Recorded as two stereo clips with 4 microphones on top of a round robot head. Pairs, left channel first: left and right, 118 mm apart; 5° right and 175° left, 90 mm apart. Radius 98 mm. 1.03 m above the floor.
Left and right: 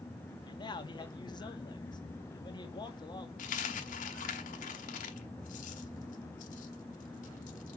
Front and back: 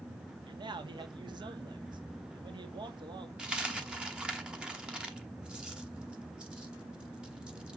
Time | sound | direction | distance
0.5 | a man speaking | 145° left | 1.6 m
3.4 | a dropped coin | 100° left | 1.2 m